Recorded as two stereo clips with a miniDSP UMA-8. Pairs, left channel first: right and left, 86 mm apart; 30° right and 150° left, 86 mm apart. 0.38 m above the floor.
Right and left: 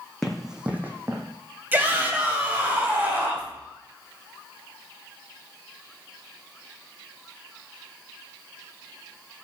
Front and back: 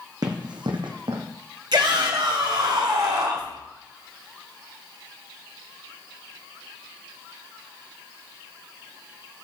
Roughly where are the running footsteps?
Behind.